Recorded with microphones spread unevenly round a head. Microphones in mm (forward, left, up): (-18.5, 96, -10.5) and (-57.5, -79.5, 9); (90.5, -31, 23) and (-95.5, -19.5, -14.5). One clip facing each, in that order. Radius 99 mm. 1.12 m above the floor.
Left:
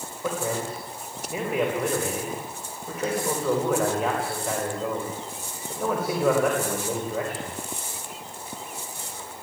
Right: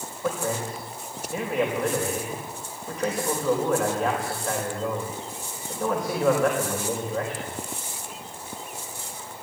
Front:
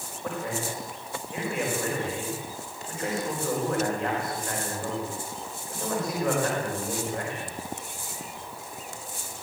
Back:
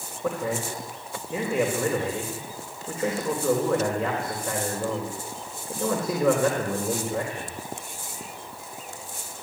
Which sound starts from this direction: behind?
A man speaking, at 0.2 s.